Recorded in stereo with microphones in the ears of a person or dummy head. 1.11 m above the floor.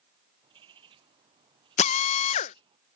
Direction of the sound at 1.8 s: 40° left (ahead or behind).